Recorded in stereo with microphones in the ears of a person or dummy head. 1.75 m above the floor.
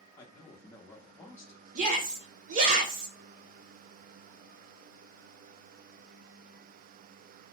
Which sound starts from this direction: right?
A shout, at 1.8 s.